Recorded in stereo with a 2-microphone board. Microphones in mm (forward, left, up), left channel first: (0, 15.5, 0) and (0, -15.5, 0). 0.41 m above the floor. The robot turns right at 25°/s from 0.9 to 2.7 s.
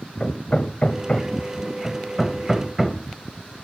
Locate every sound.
0.2 s hammering: 35° left (ahead or behind), 1.9 m; by 3.6 s 5° right (ahead or behind), 1.9 m